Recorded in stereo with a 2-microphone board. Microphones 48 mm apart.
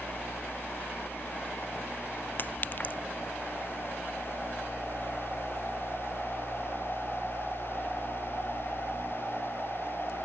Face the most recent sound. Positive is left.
turn(degrees=40)  # may be behind; listen again after turning